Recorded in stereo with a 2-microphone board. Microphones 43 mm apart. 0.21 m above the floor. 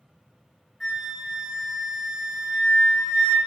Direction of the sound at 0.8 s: 5° left (ahead or behind).